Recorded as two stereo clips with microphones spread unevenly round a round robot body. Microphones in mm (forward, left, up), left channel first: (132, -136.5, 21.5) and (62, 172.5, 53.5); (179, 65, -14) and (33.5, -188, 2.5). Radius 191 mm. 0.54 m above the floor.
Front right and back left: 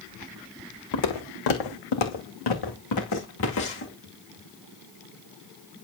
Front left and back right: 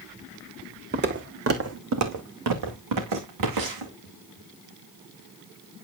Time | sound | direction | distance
0.9 | footsteps | 65° right | 2 m